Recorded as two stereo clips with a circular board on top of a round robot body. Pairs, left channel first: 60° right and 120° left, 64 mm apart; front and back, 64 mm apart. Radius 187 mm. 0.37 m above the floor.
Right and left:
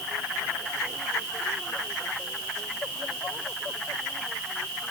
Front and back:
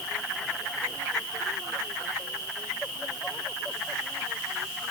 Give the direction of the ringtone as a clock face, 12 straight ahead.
I don't hear a ringtone.